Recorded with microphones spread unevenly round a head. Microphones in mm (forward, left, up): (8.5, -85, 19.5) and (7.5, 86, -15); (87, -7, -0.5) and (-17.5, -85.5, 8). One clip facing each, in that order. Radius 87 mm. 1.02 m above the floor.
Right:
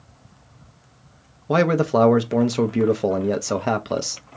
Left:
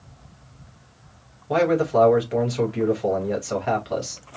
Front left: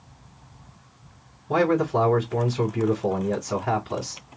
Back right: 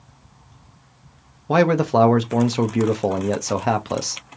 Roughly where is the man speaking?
Behind right.